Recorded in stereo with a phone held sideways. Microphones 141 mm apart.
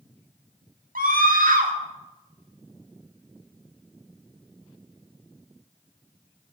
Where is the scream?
80° right, 2 m.